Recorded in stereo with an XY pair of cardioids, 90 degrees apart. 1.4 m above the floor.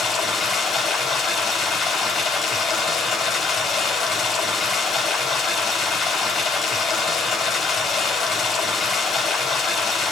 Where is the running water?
60° left, 4 m.